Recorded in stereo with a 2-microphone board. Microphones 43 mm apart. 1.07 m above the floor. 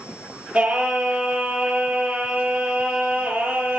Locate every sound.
0.5 s singing: 20° right (ahead or behind), 7 m